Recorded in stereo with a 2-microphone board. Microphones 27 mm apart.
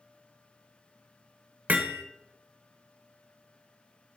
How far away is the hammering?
About 1.1 m.